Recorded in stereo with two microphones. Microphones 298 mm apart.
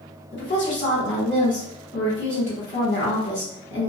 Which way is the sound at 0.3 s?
40° left (ahead or behind).